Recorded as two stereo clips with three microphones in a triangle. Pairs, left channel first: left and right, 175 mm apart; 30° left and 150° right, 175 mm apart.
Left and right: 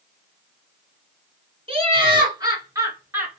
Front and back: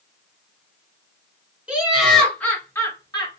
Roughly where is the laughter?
Right.